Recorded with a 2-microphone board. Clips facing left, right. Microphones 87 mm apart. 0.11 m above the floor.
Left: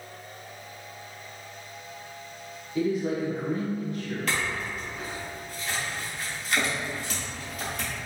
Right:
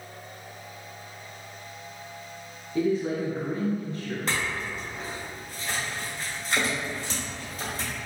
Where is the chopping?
No chopping in this recording.